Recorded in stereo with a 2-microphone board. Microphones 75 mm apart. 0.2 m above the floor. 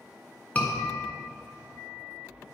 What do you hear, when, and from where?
0.6 s a scream: 20° left (ahead or behind), 2 m